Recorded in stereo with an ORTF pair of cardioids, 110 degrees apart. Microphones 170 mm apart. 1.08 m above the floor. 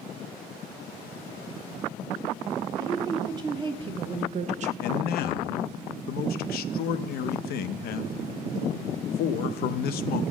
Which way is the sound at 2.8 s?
20° right.